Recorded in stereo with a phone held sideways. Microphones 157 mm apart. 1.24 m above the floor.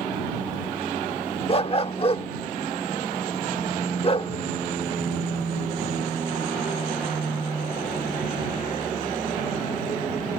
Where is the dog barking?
40° left (ahead or behind).